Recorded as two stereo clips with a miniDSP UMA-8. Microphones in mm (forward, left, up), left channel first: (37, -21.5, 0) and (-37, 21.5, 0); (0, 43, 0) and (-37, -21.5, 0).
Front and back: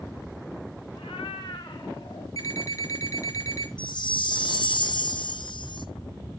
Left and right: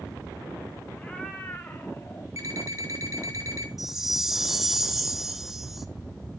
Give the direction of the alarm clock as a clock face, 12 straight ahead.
3 o'clock.